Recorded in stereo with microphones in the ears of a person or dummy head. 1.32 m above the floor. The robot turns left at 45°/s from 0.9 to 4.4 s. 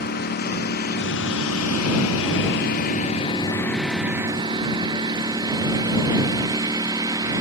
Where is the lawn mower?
50° left (ahead or behind); by 7.4 s 20° right (ahead or behind).